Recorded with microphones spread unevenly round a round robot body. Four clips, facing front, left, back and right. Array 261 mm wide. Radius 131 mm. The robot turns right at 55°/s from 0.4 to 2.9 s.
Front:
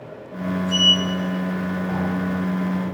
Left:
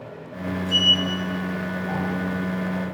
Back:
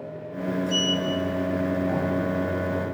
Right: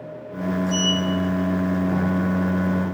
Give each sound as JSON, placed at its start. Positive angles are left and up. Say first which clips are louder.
{"t": 0.7, "sound": "a sliding door", "louder": "right 1 dB, front 2 dB", "azimuth_deg": 180, "distance_m": 5.0}